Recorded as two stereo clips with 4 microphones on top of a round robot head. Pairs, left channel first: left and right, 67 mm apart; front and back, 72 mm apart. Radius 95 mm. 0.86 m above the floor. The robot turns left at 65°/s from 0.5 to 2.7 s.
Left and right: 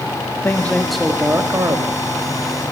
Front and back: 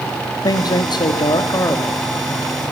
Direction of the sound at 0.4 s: 30° left.